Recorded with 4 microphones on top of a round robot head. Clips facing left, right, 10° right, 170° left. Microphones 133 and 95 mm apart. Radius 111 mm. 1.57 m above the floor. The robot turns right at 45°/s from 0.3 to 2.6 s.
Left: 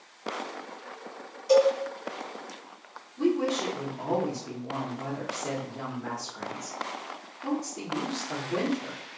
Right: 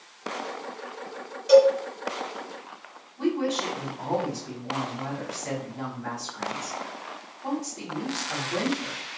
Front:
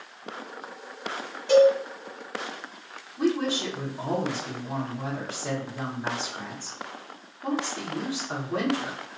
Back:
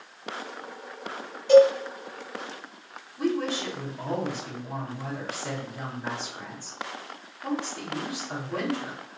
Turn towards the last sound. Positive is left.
turn(degrees=55)